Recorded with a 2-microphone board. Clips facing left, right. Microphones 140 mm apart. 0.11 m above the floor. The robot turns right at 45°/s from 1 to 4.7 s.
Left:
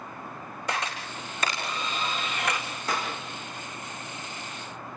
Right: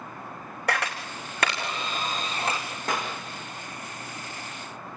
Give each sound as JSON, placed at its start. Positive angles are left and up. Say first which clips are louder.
{"t": 0.7, "sound": "a camera shutter", "louder": "right 3 dB", "side_deg": -80, "distance_m": 3.5}
{"t": 2.9, "sound": "a clap", "louder": "right 1 dB", "side_deg": -50, "distance_m": 6.0}